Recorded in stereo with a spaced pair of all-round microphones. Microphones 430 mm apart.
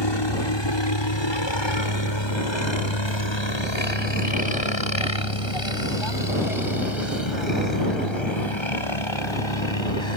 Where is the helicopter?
65° left (ahead or behind); by 10.2 s 75° left (ahead or behind).